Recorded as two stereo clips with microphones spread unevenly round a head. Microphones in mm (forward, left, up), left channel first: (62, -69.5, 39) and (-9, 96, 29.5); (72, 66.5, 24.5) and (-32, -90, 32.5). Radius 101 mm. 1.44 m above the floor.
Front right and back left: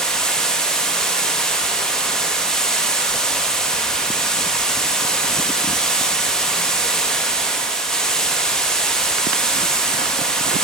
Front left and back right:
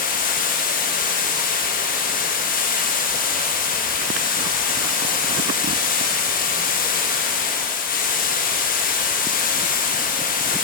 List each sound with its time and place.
0.0 s running water: 20° left, 1.1 m